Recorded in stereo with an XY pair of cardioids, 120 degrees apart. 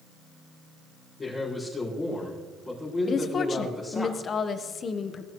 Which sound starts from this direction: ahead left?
A woman speaking, at 3.1 s.